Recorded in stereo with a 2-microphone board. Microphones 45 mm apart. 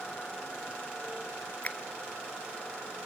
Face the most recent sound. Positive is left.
turn(degrees=35)  # may be behind; listen again after turning